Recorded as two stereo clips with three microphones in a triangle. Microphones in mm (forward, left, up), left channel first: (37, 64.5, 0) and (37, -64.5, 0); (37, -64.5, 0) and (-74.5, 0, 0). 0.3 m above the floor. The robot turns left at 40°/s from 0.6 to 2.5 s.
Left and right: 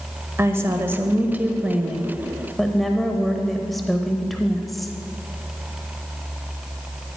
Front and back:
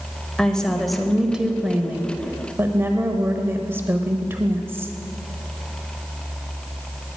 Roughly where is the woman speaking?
Right.